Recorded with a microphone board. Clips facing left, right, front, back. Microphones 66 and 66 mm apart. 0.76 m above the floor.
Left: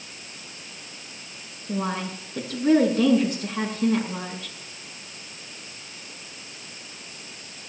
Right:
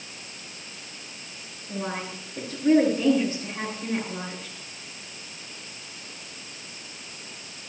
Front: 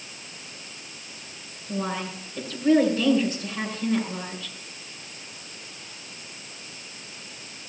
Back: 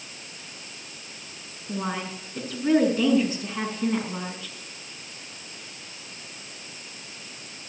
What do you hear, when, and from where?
1.7 s a woman speaking: 115° left, 7 m